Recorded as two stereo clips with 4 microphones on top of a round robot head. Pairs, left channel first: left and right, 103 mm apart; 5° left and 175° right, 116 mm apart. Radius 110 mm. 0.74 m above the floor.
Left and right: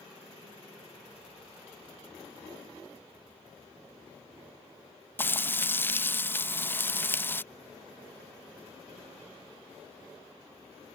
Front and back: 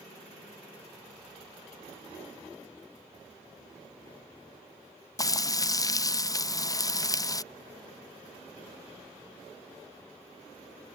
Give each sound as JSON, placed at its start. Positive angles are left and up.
{"t": 5.2, "sound": "frying", "azimuth_deg": 35}